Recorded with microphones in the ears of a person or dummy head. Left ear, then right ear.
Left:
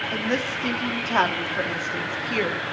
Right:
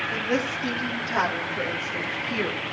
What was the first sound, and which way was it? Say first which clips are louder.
A woman speaking: even; 55° left (ahead or behind).